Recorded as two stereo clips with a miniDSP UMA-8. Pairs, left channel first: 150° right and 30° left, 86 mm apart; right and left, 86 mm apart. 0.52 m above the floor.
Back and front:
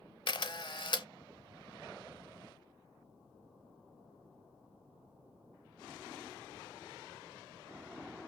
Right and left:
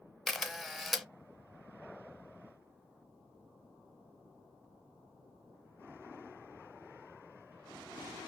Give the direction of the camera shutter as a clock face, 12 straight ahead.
6 o'clock.